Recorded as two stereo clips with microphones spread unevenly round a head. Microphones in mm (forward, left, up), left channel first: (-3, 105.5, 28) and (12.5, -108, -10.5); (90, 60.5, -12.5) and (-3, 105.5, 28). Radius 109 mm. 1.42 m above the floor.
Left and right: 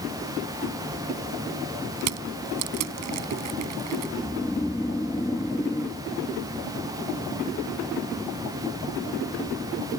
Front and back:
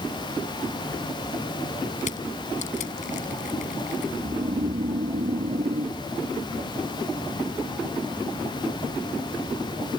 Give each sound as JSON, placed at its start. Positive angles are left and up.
{"t": 2.0, "sound": "crushing", "azimuth_deg": -70}
{"t": 4.2, "sound": "snoring", "azimuth_deg": 175}